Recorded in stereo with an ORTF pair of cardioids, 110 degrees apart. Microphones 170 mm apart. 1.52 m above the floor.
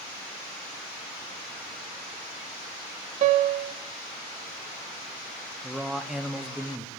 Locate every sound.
3.2 s a piano: 50° right, 0.5 m
5.6 s a man speaking: 5° right, 0.7 m